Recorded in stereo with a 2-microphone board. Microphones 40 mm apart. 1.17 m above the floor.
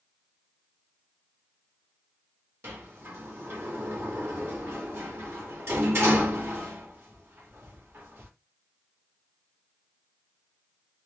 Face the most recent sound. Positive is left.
turn(degrees=-65)  # may be behind; listen again after turning